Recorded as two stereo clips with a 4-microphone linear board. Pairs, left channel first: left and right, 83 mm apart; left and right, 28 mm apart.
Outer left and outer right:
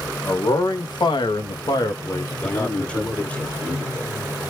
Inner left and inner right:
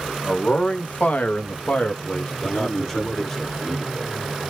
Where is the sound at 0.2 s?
45° left (ahead or behind), 1.3 m; by 3.4 s 10° left (ahead or behind), 1.7 m.